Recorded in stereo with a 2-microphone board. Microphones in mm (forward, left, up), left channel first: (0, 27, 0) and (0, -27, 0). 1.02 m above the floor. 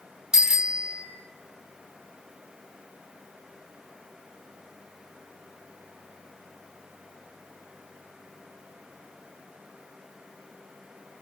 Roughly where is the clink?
No clink in this recording.